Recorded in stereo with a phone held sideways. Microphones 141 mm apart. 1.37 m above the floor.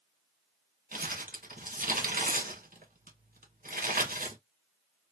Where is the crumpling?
75° right (ahead or behind), 1.7 m.